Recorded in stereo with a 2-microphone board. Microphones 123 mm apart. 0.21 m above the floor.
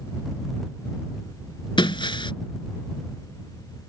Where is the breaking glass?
40° left (ahead or behind).